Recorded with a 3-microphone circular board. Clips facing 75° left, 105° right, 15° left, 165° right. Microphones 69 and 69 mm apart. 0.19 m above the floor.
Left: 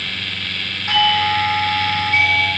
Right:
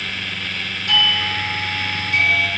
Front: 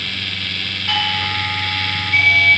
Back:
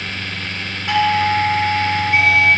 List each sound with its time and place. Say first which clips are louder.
0.9 s a doorbell: left 5 dB, back 7 dB; 130° left, 3.5 m